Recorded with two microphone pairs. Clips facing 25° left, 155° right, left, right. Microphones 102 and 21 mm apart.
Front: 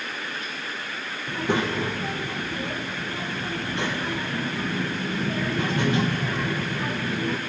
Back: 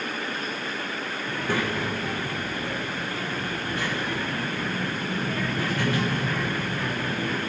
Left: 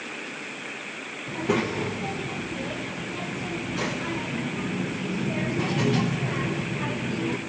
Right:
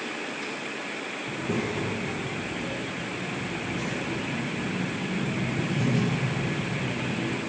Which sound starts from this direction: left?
A child speaking, at 1.3 s.